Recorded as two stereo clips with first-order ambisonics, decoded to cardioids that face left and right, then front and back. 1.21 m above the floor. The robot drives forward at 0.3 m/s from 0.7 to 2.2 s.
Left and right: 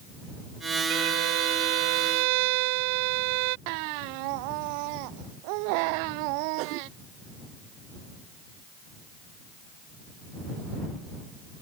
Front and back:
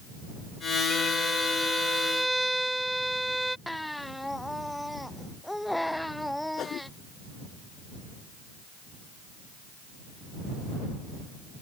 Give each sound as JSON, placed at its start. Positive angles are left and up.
{"t": 0.9, "sound": "a violin", "azimuth_deg": -90}
{"t": 3.7, "sound": "a baby crying", "azimuth_deg": -90}
{"t": 6.6, "sound": "a whoosh", "azimuth_deg": -55}